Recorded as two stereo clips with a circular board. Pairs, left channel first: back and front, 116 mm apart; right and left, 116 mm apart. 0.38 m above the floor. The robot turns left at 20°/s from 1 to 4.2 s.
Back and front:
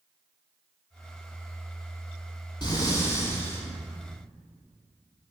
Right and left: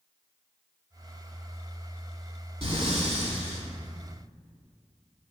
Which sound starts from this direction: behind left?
Breathing, at 2.6 s.